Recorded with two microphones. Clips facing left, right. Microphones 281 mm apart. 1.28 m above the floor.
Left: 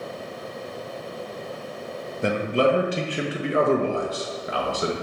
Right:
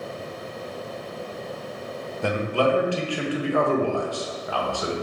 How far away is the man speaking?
About 0.6 m.